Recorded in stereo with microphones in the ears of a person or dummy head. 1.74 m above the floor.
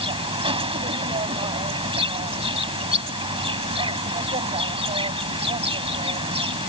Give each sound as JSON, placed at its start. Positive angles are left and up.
{"t": 0.0, "sound": "an insect", "side_deg": -25}